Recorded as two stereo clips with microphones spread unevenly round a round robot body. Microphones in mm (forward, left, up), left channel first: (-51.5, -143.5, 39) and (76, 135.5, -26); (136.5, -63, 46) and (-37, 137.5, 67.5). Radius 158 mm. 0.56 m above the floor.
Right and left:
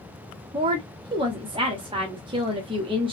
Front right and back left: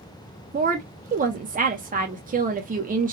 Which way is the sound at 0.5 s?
95° left.